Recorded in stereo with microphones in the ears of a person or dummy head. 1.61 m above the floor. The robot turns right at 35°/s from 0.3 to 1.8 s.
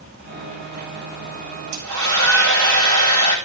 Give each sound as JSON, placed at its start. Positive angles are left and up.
{"t": 1.7, "sound": "a hair dryer", "side_deg": -65, "distance_m": 5.5}